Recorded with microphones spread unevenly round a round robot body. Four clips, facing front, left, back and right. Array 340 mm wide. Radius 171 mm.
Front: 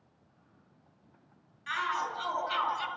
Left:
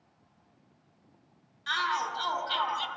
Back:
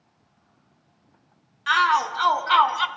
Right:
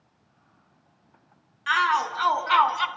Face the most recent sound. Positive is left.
turn(degrees=-135)